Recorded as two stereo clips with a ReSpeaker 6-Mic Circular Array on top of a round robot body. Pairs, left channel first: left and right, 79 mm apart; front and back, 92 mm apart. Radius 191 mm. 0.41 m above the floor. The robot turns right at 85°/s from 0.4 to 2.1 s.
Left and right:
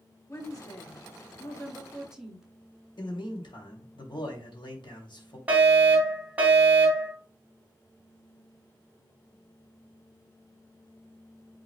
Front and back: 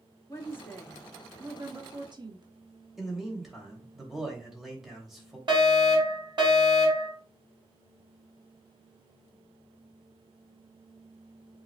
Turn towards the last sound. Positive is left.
turn(degrees=-160)